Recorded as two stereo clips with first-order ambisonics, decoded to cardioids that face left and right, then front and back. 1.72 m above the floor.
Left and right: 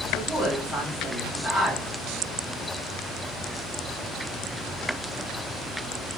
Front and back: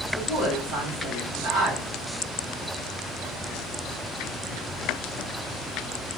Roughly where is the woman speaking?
Behind left.